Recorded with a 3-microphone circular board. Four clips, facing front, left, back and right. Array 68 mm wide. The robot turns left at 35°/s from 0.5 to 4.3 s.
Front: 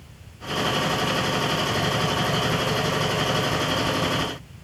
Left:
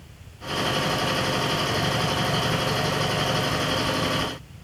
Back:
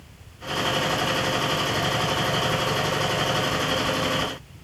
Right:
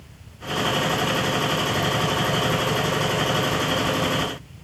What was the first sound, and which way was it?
Only background noise.